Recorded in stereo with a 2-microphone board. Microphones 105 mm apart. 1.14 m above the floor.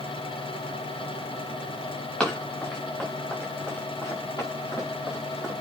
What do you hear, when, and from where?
2.2 s running footsteps: 15° left (ahead or behind), 5 m; by 5.5 s 35° left (ahead or behind), 7 m